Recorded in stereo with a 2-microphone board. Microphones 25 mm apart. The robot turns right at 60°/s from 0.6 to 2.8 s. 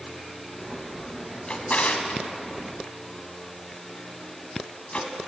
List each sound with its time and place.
1.5 s a drawer: 50° left (ahead or behind), 1.1 m